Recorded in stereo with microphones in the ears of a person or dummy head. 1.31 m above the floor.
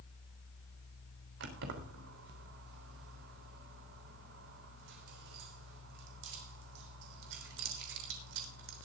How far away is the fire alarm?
No fire alarm in this recording.